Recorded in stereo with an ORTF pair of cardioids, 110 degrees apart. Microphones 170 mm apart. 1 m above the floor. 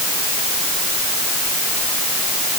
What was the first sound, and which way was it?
Only background noise.